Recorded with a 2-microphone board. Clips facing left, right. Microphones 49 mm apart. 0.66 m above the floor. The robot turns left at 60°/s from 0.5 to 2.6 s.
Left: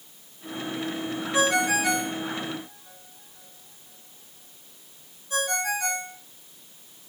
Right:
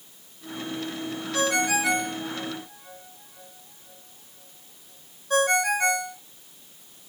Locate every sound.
1.3 s a ringtone: 10° left (ahead or behind), 1.7 m; by 6.2 s 60° right (ahead or behind), 1.7 m